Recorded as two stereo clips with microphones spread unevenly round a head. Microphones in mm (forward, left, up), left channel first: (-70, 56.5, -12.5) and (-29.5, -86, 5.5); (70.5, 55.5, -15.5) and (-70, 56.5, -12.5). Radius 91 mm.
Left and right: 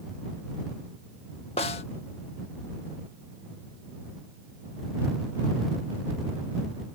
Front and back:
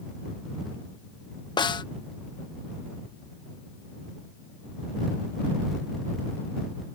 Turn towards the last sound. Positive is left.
turn(degrees=55)